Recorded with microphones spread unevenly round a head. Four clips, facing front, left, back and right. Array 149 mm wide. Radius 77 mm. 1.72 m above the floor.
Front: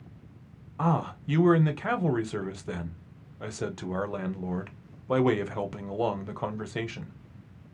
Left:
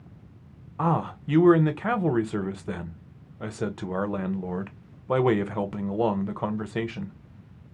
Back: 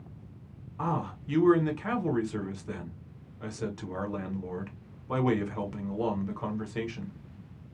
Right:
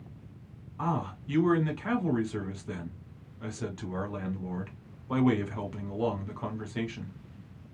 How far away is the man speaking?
About 0.7 m.